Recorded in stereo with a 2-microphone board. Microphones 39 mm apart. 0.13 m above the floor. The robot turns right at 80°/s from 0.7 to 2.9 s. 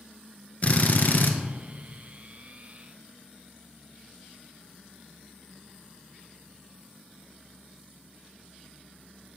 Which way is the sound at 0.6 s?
50° left.